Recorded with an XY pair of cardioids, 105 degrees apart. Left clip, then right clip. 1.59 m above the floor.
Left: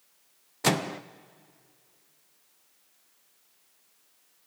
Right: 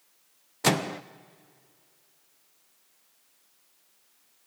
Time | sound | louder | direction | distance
0.6 | a microwave | right 1 dB | 5° right | 0.5 m